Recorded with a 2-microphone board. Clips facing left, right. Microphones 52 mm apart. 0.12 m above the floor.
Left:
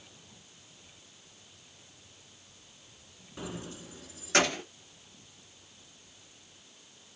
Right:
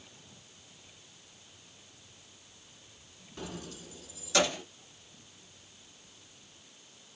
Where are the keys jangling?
10° left (ahead or behind), 0.8 m; by 4.6 s 55° left (ahead or behind), 1.3 m.